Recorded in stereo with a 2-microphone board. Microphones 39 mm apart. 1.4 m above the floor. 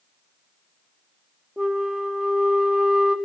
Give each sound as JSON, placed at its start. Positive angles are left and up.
{"t": 1.6, "sound": "a flute", "side_deg": -15, "distance_m": 1.4}